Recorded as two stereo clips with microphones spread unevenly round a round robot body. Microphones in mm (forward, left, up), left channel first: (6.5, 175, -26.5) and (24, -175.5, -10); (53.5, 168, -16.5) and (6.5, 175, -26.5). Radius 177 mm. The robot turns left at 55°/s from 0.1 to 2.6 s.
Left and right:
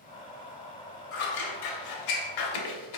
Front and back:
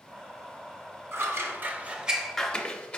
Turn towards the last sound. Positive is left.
turn(degrees=65)